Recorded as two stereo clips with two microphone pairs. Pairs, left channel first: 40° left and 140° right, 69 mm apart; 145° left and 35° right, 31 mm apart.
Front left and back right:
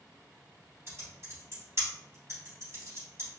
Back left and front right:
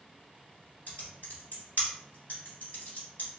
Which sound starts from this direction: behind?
Typing on a keyboard, at 0.9 s.